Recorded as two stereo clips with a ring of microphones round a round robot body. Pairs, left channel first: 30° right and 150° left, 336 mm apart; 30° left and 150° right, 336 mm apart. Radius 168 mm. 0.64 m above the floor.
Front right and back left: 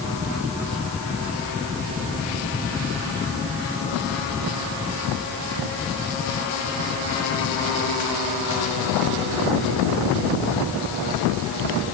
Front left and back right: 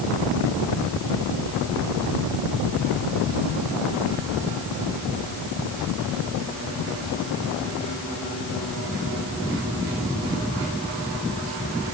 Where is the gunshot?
No gunshot in this recording.